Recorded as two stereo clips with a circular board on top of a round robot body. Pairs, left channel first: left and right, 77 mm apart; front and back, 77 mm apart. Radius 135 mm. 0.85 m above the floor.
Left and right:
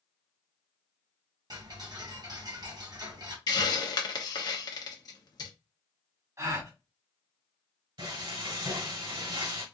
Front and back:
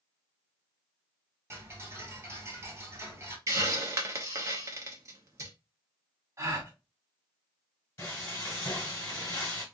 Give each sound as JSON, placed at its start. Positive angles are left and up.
{"t": 1.5, "sound": "ticking", "azimuth_deg": -120, "distance_m": 1.9}
{"t": 3.5, "sound": "a hiss", "azimuth_deg": 125, "distance_m": 0.9}
{"t": 6.4, "sound": "a gasp", "azimuth_deg": -135, "distance_m": 1.8}
{"t": 8.0, "sound": "frying", "azimuth_deg": -60, "distance_m": 1.5}